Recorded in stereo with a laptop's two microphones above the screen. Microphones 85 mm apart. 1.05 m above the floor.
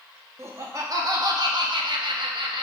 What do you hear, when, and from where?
0.4 s laughter: 30° right (ahead or behind), 1.9 m; by 2.6 s 70° right (ahead or behind), 1.3 m